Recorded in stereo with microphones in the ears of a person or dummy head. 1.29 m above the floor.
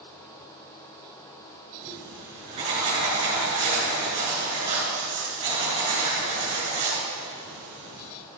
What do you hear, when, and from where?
1.8 s writing: 35° right (ahead or behind), 4.5 m